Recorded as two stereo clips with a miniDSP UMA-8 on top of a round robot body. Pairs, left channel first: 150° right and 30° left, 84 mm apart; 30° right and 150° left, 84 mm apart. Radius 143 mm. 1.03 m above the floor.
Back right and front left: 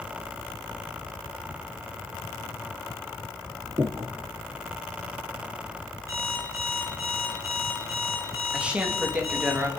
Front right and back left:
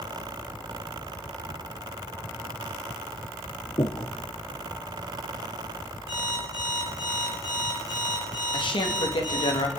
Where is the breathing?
15° right, 0.5 m.